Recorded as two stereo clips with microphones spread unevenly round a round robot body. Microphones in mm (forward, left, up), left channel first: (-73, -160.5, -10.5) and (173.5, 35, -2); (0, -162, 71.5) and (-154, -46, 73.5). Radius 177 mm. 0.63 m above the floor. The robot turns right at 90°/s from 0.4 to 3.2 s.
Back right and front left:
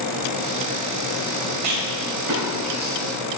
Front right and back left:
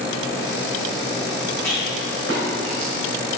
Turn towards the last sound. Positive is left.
turn(degrees=-175)